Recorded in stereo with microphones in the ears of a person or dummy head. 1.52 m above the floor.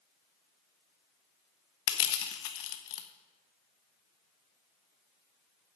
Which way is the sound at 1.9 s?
60° left (ahead or behind).